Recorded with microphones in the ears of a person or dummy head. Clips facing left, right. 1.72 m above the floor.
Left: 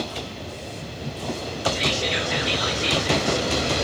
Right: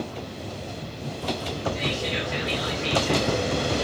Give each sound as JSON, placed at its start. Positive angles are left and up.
{"t": 1.8, "sound": "whispering", "side_deg": 75, "distance_m": 2.5}